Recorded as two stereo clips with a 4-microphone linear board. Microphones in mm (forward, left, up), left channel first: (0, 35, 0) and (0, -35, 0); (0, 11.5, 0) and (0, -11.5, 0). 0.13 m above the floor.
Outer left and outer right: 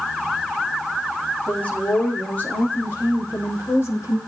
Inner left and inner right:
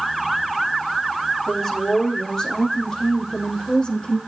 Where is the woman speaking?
20° left (ahead or behind), 6.5 m; by 4.2 s 40° left (ahead or behind), 4.5 m.